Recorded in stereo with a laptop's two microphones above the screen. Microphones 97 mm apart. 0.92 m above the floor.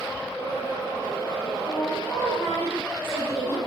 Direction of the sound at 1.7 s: 25° left (ahead or behind).